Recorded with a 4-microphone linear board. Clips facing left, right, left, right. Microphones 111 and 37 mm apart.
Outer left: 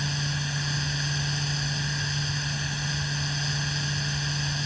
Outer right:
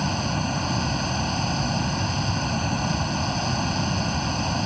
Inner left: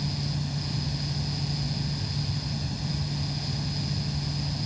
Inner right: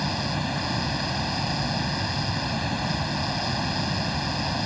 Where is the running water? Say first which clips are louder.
Outer right 7 dB, inner right 5 dB; 55° right (ahead or behind).